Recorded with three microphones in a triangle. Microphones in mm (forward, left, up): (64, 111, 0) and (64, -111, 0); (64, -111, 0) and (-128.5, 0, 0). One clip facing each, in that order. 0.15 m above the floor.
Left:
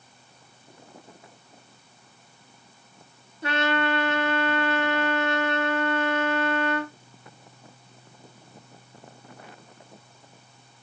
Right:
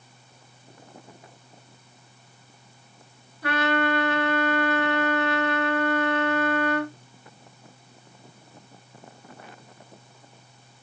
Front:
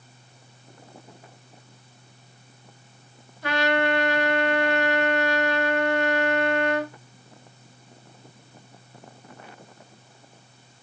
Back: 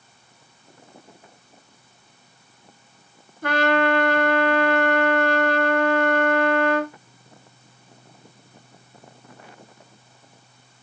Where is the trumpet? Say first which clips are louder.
Right 1 dB, back 3 dB; 145° left, 0.8 m.